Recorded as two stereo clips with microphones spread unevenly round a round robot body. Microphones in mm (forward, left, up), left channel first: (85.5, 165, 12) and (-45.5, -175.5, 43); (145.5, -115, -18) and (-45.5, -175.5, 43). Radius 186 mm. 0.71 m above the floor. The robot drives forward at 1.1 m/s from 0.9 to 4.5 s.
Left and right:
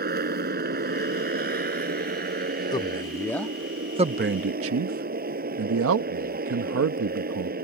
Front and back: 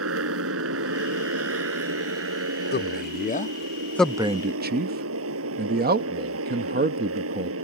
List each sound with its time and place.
0.0 s a motorcycle: 175° right; by 7.6 s straight behind
2.7 s a man speaking: 10° right; by 7.5 s 130° right